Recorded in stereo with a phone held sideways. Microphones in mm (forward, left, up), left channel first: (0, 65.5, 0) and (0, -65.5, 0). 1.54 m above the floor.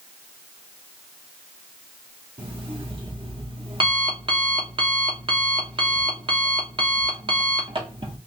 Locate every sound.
2.4 s an alarm clock: 40° right (ahead or behind), 0.9 m